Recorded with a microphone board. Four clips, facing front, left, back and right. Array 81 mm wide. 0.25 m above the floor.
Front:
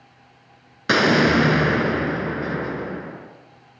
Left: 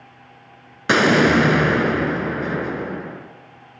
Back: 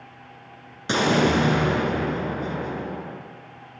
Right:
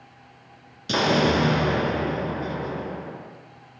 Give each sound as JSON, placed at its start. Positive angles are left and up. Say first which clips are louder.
{"t": 0.9, "sound": "an explosion", "louder": "left 6 dB, front 3 dB", "azimuth_deg": 60, "distance_m": 3.5}